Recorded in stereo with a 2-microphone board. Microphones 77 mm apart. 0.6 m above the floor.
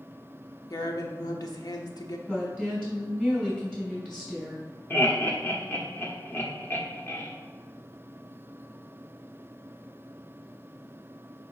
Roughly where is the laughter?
Left.